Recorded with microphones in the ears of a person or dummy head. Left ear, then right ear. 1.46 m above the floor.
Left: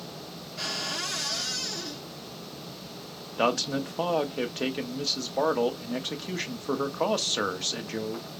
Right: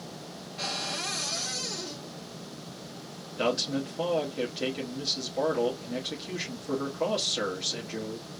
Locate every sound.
0.6 s a cupboard door: 80° left, 2.5 m
3.4 s a man speaking: 45° left (ahead or behind), 0.8 m